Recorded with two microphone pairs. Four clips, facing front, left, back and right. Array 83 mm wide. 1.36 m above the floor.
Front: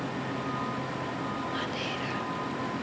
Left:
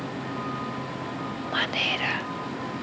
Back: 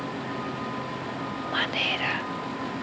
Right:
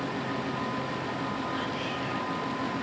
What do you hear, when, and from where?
1.5 s whispering: 130° left, 0.7 m